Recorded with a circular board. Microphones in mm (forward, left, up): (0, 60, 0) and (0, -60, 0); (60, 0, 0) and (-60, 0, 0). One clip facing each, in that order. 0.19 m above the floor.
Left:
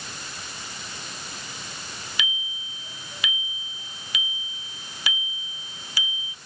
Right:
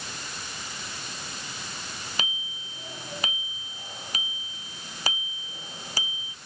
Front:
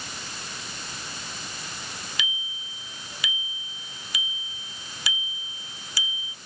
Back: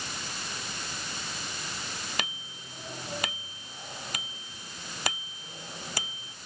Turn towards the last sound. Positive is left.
turn(degrees=-140)